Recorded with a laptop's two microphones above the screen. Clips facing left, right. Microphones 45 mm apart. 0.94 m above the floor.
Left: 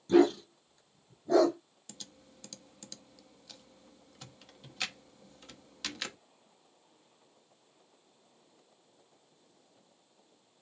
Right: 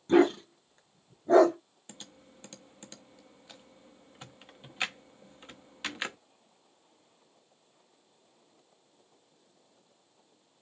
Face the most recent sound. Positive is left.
turn(degrees=-25)  # may be behind; listen again after turning